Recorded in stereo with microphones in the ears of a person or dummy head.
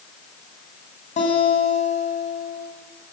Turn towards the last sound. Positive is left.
turn(degrees=40)  # may be behind; listen again after turning